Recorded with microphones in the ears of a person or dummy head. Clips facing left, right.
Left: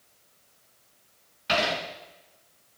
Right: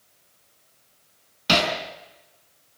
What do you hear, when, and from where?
1.5 s hammering: 60° right (ahead or behind), 5.5 m